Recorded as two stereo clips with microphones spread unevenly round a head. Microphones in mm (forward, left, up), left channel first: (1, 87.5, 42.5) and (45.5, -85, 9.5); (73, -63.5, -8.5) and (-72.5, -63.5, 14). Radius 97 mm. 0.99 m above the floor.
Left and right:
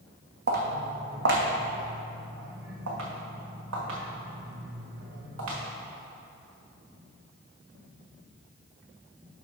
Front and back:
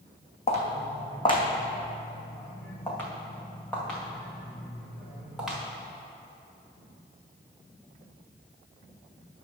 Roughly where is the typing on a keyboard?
No typing on a keyboard in this recording.